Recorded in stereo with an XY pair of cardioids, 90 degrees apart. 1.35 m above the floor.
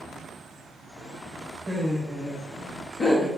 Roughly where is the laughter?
Ahead.